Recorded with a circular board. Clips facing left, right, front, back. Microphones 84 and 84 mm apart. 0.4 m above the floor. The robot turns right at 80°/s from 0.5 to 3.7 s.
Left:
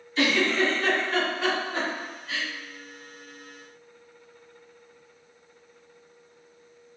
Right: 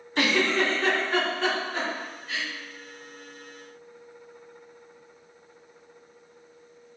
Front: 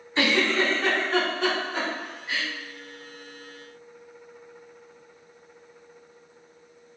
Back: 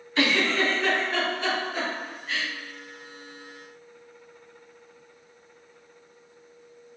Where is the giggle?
65° right, 1.7 m; by 2.5 s 90° left, 1.7 m.